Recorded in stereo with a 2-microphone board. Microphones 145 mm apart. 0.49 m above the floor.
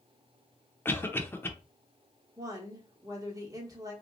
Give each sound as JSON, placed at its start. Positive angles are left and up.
{"t": 0.8, "sound": "a cough", "side_deg": 15, "distance_m": 0.7}
{"t": 2.4, "sound": "a woman speaking", "side_deg": -25, "distance_m": 1.2}